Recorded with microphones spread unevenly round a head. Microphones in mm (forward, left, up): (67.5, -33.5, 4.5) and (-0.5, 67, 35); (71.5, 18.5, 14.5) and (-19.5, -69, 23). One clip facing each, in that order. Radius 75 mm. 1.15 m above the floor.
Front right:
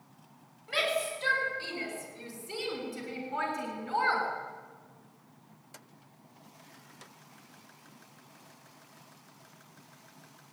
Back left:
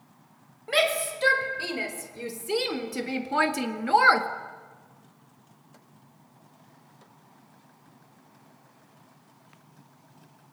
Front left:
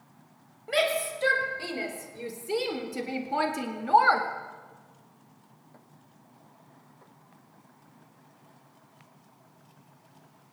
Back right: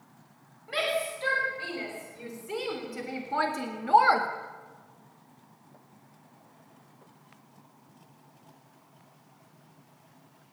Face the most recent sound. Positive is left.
turn(degrees=150)